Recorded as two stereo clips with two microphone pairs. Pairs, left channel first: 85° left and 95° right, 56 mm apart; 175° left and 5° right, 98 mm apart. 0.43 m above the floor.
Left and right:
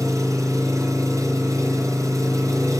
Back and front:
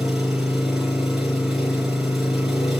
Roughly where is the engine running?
Right.